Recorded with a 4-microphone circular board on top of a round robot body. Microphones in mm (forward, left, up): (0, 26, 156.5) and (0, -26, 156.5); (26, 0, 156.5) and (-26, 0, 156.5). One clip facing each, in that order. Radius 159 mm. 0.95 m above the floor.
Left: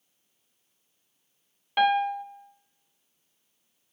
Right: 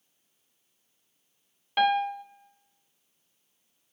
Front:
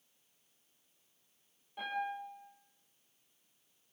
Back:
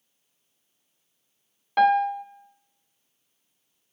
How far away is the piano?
About 0.5 m.